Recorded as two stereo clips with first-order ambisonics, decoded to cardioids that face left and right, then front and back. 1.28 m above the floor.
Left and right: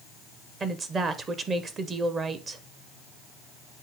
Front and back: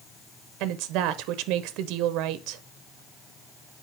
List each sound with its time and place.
0.6 s a woman speaking: 155° right, 0.6 m